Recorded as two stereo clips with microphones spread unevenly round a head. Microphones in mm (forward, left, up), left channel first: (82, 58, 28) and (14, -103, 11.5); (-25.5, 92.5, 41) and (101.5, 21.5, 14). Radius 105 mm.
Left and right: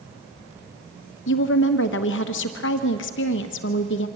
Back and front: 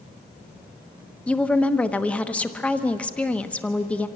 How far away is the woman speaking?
About 1.2 m.